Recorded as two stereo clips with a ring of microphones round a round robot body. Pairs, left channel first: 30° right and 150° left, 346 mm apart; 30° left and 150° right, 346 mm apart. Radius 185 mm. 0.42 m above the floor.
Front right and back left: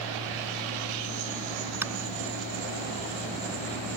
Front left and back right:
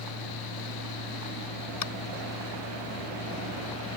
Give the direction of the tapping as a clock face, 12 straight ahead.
10 o'clock.